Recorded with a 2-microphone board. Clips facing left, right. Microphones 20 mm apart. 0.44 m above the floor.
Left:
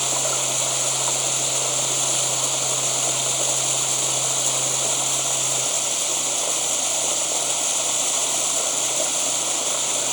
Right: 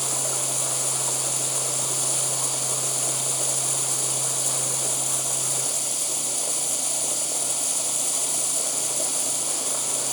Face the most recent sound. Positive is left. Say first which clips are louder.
# left 5 dB
turn(degrees=35)  # may be behind; listen again after turning